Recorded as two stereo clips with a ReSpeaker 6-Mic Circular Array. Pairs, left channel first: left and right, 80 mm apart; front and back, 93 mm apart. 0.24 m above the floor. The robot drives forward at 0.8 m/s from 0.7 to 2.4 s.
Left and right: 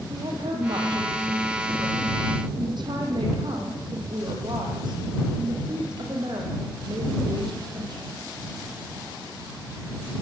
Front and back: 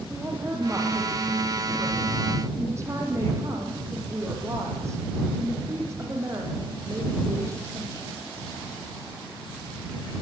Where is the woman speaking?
110° right, 8 m; by 8.2 s 120° right, 8.5 m.